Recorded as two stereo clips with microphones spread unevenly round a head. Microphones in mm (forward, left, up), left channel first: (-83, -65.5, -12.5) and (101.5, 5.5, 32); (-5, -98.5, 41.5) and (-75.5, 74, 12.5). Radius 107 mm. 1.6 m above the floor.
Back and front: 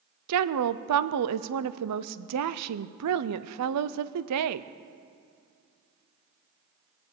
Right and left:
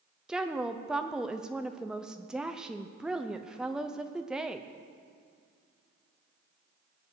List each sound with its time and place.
0.3 s a woman speaking: 25° left, 0.6 m